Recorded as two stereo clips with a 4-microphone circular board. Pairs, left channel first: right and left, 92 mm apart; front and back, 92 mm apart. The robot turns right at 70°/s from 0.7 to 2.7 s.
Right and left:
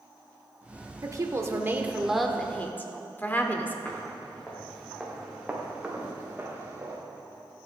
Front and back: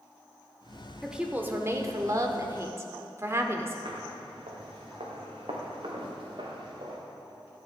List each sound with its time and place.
1.0 s a woman speaking: 95° left, 1.0 m; by 3.8 s 145° right, 1.0 m
3.9 s footsteps: 165° right, 2.5 m; by 7.0 s 155° left, 3 m